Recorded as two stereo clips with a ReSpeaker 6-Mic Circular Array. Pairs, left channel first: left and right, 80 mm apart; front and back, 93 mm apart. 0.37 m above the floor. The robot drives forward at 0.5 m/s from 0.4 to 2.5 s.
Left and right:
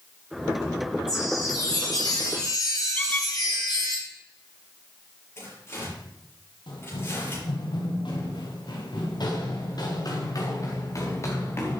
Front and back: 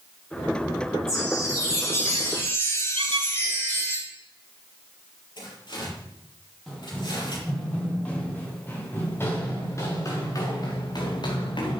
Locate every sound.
1.1 s a chime: 50° left, 4 m; by 4.0 s 60° left, 3.5 m
3.0 s a squeak: 160° left, 1.1 m
5.4 s tearing paper: 35° left, 7 m
6.7 s running footsteps: 85° left, 5 m; by 11.8 s 30° left, 3.5 m